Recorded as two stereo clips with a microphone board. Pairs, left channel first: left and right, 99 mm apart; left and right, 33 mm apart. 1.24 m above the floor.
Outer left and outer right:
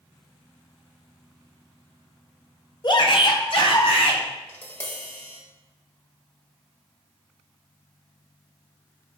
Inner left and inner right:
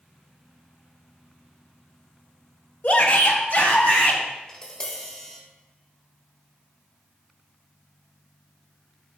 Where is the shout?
50° left (ahead or behind), 1.1 m; by 4.2 s 65° left (ahead or behind), 2.5 m.